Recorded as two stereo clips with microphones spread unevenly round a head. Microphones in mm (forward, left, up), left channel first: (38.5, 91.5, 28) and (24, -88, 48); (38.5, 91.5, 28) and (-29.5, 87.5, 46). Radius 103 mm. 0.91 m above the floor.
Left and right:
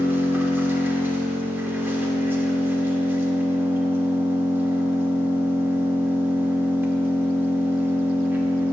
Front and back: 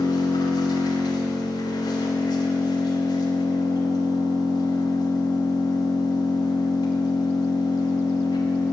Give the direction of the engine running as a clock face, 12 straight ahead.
12 o'clock.